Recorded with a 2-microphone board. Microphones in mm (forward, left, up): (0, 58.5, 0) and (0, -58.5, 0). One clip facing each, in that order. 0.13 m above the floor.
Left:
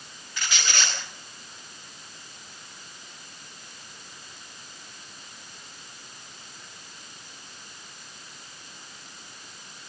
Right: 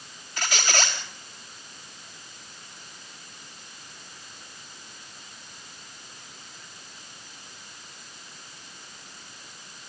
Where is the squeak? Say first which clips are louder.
Right 3 dB; 40° right (ahead or behind), 4.5 m.